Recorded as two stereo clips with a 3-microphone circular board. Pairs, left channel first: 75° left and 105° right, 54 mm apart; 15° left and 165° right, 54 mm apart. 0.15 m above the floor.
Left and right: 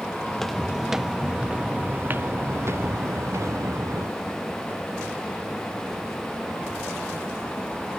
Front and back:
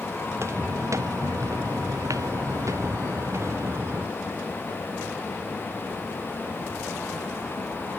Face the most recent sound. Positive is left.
turn(degrees=-120)